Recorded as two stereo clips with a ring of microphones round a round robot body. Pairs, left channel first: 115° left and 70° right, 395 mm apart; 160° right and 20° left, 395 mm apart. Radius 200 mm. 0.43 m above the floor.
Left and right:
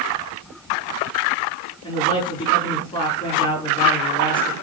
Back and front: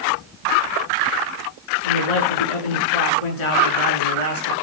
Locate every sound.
1.8 s a man speaking: 170° right, 6.5 m